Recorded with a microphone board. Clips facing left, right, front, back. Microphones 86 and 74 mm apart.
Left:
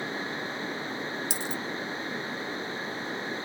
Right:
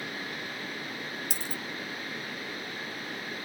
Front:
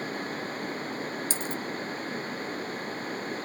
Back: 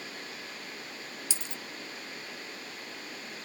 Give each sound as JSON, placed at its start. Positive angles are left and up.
{"t": 1.3, "sound": "a dropped coin", "azimuth_deg": -50, "distance_m": 0.7}